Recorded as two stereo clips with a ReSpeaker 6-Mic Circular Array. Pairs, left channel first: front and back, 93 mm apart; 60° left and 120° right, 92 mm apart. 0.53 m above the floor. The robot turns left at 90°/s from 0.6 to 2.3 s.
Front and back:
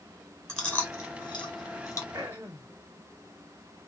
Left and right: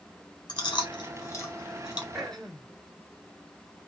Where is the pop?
No pop in this recording.